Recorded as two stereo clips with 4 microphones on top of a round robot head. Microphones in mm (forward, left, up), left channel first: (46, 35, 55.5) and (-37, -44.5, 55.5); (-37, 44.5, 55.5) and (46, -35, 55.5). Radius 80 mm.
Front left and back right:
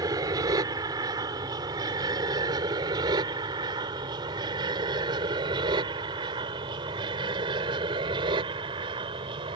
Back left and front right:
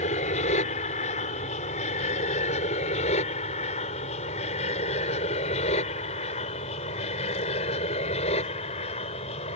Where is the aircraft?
165° left; by 9.6 s 175° left.